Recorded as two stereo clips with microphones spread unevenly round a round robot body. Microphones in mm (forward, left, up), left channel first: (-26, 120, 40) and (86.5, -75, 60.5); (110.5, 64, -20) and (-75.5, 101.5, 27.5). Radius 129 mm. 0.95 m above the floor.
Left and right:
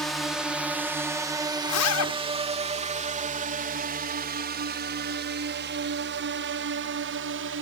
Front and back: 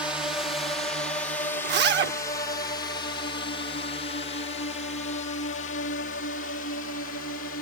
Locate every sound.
0.0 s a drone: 50° left; by 7.6 s 35° right
1.6 s a zipper: 140° left